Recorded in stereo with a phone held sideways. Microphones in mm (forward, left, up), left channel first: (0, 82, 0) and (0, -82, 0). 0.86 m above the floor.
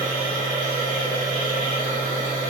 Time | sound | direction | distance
0.0 | a machine running | 55° left (ahead or behind) | 1.2 m